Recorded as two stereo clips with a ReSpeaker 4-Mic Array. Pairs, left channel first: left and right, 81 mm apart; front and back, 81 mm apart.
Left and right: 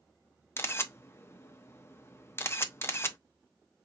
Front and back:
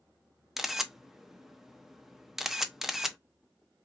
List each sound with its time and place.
0.6 s a camera shutter: 95° left, 0.6 m